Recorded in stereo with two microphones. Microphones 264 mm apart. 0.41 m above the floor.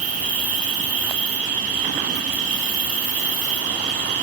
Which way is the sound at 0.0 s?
30° right (ahead or behind).